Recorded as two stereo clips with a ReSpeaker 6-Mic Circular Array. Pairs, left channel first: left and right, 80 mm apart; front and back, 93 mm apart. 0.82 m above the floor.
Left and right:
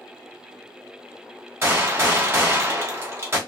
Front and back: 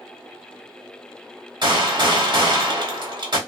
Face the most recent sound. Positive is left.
turn(degrees=-145)